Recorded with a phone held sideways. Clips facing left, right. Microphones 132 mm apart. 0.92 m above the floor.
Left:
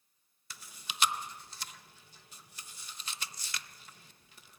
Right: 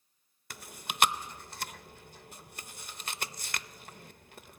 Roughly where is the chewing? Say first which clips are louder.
Right 6 dB; right.